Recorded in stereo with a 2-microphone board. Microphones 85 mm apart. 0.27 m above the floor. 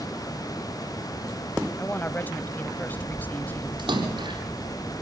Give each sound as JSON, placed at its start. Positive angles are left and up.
{"t": 1.8, "sound": "a woman speaking", "side_deg": 20, "distance_m": 1.4}
{"t": 3.8, "sound": "a splash", "side_deg": -75, "distance_m": 7.0}